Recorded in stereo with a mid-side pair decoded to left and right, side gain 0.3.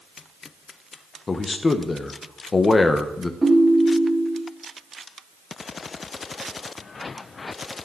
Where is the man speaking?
45° left, 1.1 m.